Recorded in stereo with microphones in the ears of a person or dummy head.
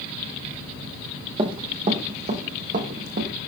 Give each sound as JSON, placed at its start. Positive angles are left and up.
{"t": 1.4, "sound": "running footsteps", "side_deg": -30, "distance_m": 4.0}